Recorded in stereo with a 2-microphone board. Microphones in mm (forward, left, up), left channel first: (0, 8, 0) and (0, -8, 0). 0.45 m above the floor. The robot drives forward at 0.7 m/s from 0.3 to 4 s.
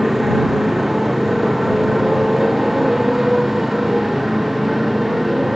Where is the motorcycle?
15° right (ahead or behind).